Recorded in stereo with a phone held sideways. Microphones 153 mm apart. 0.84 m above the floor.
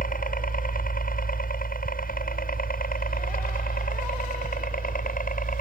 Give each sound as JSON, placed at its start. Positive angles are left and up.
{"t": 0.0, "sound": "a helicopter", "side_deg": 65}